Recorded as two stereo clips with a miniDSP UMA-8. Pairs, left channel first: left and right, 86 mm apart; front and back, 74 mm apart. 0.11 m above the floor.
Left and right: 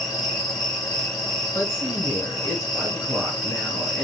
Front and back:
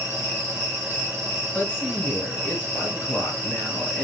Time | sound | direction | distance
0.0 | an insect | straight ahead | 2 m
1.5 | a woman speaking | 60° left | 2.0 m